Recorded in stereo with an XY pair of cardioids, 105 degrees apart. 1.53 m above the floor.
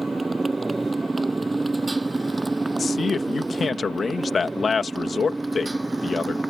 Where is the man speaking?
35° left.